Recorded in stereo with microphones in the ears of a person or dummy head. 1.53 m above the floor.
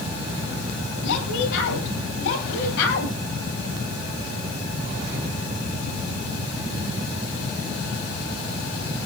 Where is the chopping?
No chopping in this recording.